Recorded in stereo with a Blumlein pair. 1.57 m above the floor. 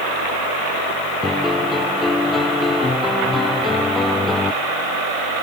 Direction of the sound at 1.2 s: 10° left.